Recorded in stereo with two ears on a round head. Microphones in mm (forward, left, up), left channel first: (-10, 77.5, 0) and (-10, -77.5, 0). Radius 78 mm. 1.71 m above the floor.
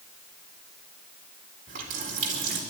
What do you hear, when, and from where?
1.7 s a running tap: 50° right (ahead or behind), 4 m